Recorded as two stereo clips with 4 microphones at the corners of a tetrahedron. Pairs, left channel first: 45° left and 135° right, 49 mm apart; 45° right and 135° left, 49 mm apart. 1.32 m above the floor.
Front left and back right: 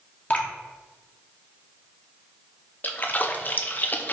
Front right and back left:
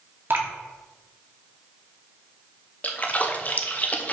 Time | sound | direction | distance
0.3 | dripping | 100° left | 1.1 m
2.8 | a splash | 5° left | 0.7 m